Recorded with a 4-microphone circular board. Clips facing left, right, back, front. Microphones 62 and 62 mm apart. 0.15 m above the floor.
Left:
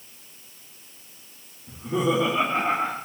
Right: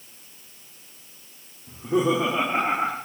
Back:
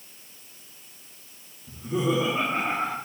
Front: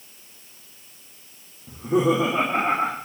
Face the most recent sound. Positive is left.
turn(degrees=-30)